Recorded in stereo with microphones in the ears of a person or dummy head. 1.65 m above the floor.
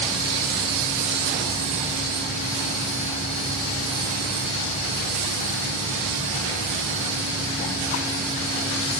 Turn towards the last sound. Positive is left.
No sound to turn to.